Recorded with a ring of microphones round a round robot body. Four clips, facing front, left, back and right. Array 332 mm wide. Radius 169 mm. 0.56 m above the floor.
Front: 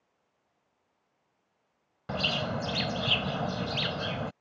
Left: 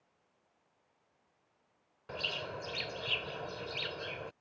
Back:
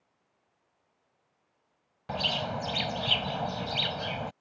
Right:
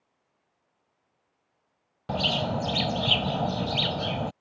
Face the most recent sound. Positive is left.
turn(degrees=-65)